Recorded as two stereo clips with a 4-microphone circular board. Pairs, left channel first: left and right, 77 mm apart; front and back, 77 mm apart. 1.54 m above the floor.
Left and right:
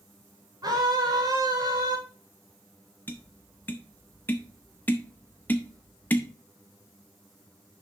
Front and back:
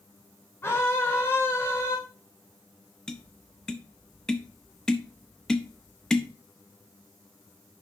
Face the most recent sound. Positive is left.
turn(degrees=70)